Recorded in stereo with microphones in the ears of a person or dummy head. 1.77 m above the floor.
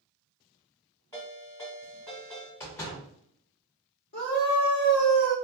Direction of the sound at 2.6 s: 15° left (ahead or behind).